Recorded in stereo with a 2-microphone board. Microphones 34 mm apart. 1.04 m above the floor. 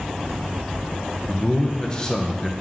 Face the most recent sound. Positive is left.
turn(degrees=20)  # may be behind; listen again after turning